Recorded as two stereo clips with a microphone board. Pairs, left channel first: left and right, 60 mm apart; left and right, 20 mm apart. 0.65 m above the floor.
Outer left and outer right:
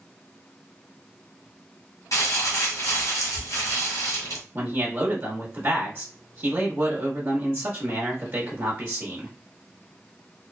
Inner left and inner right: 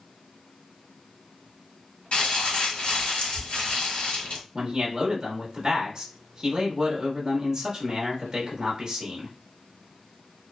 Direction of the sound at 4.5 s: 35° right (ahead or behind).